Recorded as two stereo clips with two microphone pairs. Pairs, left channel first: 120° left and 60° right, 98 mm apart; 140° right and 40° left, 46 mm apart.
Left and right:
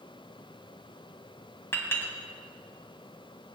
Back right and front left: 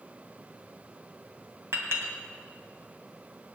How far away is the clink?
About 2.5 m.